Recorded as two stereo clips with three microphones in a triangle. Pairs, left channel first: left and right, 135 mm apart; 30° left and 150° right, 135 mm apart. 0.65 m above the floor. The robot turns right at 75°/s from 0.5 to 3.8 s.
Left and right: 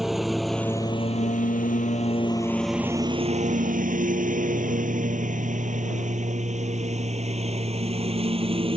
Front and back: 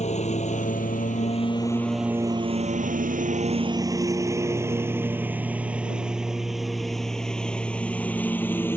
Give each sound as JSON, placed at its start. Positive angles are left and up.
{"t": 0.0, "sound": "a lawn mower", "azimuth_deg": 0}